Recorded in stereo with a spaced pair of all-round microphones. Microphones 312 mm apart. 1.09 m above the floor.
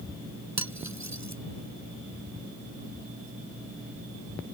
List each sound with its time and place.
0.6 s cutlery clinking: 60° right (ahead or behind)